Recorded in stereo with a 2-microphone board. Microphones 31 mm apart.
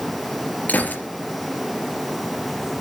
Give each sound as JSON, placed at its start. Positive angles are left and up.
{"t": 0.7, "sound": "a gunshot", "side_deg": 70, "distance_m": 3.5}